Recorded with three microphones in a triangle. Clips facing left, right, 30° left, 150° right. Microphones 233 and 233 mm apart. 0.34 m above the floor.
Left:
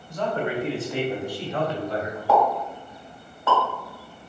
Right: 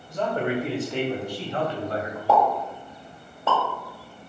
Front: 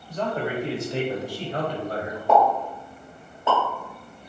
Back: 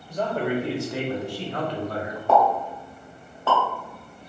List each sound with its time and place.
0.1 s a man speaking: 100° right, 1.0 m; by 2.2 s 25° left, 1.7 m
2.3 s a pop: 35° right, 1.6 m